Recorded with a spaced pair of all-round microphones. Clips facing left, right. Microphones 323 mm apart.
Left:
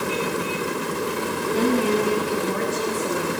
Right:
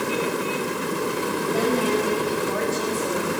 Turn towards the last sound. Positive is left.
turn(degrees=40)  # may be behind; listen again after turning